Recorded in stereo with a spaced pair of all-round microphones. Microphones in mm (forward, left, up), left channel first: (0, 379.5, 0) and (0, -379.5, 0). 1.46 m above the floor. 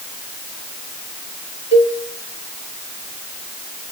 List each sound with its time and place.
1.7 s a cowbell: 5° left (ahead or behind), 3 m